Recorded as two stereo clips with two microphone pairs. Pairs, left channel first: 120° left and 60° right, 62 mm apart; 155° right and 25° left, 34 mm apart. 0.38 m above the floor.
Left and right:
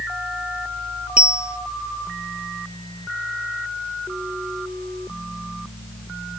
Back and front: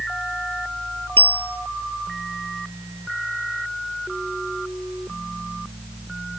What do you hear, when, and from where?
1.2 s a bell: 135° right